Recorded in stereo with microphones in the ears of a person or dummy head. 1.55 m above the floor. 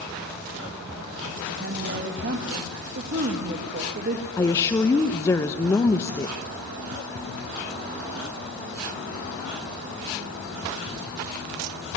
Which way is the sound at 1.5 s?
55° right (ahead or behind).